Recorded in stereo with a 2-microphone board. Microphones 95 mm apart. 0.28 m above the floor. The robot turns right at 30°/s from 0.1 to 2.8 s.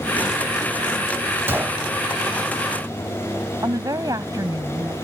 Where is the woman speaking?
45° right (ahead or behind).